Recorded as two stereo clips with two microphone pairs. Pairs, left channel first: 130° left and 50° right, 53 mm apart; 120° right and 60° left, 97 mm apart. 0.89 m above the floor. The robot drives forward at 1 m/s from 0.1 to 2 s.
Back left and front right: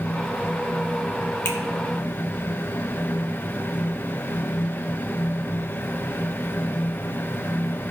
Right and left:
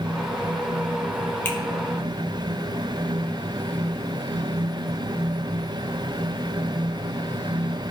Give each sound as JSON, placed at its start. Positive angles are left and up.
{"t": 1.4, "sound": "a finger snap", "azimuth_deg": 170, "distance_m": 1.5}